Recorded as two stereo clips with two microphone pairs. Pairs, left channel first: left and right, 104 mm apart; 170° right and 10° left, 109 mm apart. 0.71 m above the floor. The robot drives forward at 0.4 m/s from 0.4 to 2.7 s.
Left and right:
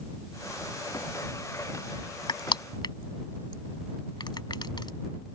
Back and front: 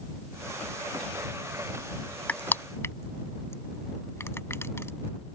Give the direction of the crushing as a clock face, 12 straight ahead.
8 o'clock.